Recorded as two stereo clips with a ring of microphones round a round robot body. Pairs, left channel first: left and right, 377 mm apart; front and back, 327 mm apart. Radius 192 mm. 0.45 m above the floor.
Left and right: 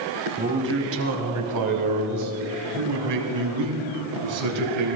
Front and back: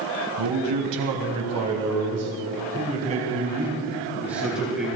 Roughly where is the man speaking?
Behind right.